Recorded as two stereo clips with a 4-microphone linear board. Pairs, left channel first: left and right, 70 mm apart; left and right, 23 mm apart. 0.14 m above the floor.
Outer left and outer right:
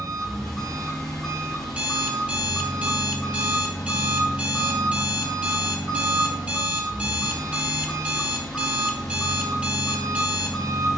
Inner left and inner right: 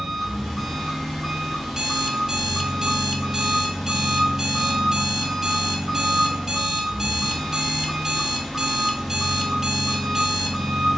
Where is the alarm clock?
15° right (ahead or behind), 0.5 m.